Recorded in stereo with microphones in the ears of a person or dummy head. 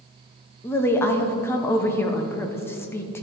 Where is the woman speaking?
10° left (ahead or behind), 0.6 m.